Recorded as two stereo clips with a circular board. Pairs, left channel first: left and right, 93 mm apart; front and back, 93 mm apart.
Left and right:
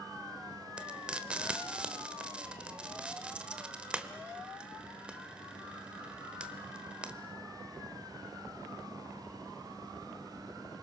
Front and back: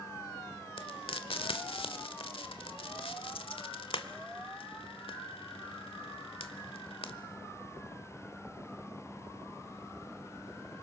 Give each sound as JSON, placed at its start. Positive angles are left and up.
{"t": 0.8, "sound": "frying", "azimuth_deg": -10, "distance_m": 1.4}